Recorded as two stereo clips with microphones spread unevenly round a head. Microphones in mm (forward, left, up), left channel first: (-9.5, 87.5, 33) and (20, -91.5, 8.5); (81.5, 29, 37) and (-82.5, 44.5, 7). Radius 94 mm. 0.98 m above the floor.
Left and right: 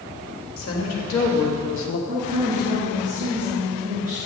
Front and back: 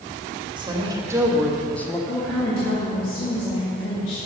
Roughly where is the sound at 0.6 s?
Behind left.